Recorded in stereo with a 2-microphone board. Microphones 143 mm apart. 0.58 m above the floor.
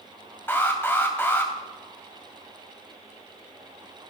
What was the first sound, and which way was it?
An alarm, 15° left (ahead or behind).